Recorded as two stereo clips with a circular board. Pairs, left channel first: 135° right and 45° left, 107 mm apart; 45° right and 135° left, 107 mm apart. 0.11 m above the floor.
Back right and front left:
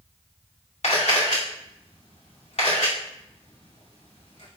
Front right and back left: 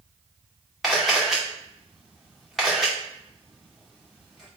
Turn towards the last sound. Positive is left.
turn(degrees=-135)